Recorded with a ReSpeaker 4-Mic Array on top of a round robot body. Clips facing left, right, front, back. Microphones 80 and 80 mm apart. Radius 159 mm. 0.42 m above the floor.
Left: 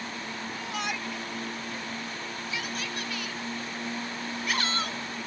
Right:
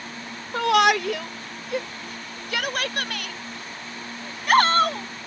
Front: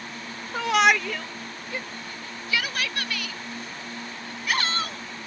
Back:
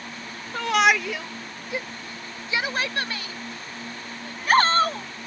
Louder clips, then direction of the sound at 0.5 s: Right 18 dB, even; 85° right.